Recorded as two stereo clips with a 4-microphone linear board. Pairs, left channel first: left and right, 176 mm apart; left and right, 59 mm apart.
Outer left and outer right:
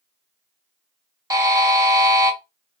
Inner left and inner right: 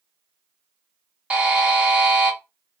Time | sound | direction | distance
1.3 | a buzzer | 20° right (ahead or behind) | 0.8 m